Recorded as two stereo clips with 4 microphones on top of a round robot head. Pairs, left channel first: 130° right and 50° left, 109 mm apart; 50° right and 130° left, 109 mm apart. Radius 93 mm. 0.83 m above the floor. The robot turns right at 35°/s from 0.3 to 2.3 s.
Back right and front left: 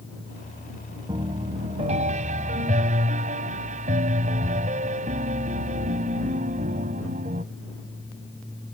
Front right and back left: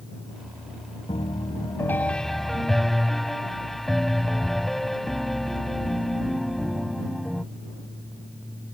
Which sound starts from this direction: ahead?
A piano, at 1.1 s.